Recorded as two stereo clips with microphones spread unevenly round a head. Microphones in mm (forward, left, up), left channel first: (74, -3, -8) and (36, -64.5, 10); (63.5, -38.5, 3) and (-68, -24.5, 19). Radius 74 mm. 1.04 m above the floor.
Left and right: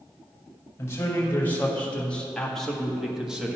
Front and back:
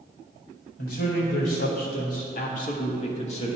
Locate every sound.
0.8 s a man speaking: 5° left, 2.0 m; by 3.6 s 45° right, 1.4 m